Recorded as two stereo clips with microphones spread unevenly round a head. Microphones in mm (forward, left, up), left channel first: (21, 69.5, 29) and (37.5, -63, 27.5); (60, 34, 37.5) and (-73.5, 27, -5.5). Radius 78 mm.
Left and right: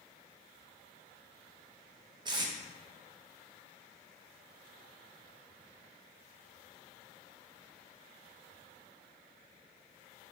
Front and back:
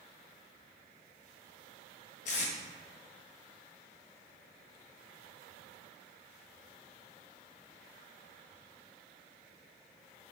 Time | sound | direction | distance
2.2 | tape being pulled | 25° right | 0.6 m